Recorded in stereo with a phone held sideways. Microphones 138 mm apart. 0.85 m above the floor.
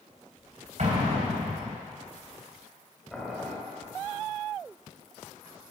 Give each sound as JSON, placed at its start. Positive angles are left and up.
{"t": 0.8, "sound": "an explosion", "side_deg": -60, "distance_m": 3.0}
{"t": 3.1, "sound": "boiling", "side_deg": 5, "distance_m": 2.0}